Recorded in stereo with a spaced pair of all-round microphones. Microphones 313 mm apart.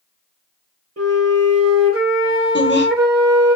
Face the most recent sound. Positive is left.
turn(degrees=35)  # may be behind; listen again after turning